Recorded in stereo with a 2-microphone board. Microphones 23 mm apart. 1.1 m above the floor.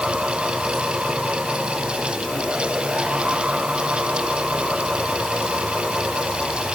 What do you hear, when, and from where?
Only background noise.